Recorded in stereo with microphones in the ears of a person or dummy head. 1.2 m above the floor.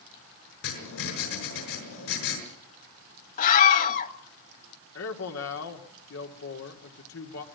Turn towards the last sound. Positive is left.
turn(degrees=65)  # may be behind; listen again after turning